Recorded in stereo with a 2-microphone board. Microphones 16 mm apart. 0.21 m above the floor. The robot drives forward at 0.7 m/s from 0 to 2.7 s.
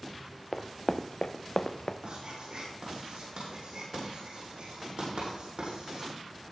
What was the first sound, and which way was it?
Running footsteps, 15° left (ahead or behind).